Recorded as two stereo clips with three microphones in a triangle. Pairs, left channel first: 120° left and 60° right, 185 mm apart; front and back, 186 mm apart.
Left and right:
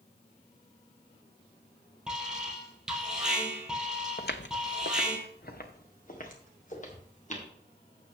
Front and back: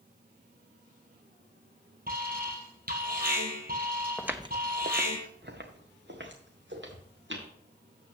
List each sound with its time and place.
2.1 s an alarm: 145° right, 3 m
4.2 s footsteps: 90° left, 0.8 m; by 7.5 s 170° left, 4 m